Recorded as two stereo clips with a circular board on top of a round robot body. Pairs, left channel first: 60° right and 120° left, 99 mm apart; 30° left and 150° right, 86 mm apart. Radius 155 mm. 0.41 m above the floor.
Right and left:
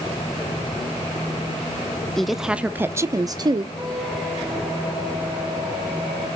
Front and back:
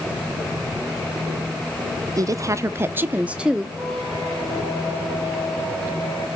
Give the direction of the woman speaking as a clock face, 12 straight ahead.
5 o'clock.